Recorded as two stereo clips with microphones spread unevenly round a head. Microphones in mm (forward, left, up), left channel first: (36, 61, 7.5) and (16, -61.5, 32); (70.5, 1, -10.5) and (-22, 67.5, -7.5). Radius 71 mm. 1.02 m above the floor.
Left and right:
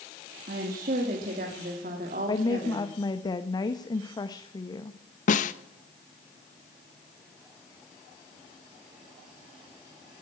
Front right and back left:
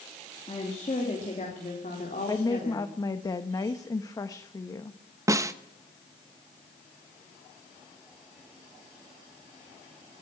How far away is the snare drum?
About 0.9 m.